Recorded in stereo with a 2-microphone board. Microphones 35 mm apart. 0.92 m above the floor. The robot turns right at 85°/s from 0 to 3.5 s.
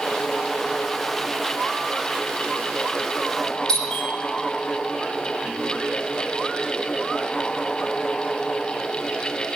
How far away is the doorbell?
About 5 m.